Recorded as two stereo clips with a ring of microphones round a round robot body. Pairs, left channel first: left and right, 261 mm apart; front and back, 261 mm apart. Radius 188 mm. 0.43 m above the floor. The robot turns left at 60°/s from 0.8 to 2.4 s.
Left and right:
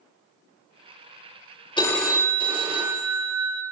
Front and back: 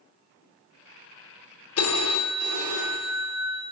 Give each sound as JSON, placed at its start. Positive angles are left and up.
{"t": 1.8, "sound": "a phone ringing", "azimuth_deg": 20, "distance_m": 1.4}